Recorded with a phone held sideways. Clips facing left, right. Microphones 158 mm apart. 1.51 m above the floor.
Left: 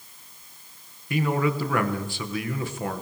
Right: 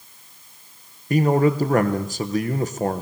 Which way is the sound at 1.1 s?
40° right (ahead or behind).